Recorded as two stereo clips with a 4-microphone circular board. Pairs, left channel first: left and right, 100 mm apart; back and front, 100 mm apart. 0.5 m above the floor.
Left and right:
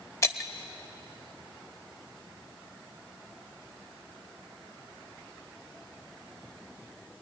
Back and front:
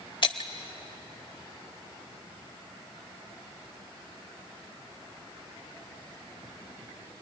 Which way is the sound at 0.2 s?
150° left.